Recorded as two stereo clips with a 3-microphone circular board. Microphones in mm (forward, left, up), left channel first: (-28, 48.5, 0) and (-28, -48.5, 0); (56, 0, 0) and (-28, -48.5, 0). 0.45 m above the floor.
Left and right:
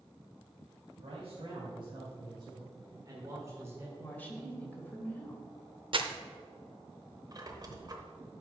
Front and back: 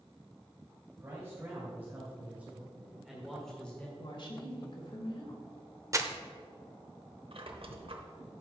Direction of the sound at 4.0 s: 20° left.